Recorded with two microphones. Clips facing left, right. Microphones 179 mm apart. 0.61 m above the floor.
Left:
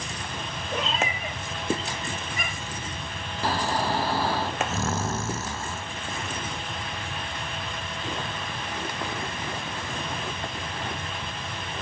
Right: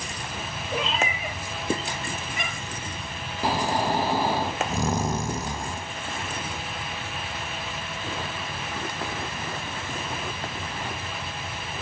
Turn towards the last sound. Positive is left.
turn(degrees=-15)  # may be behind; listen again after turning